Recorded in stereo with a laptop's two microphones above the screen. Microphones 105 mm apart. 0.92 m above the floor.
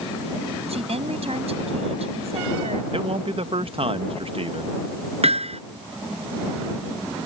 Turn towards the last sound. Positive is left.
turn(degrees=-70)  # may be behind; listen again after turning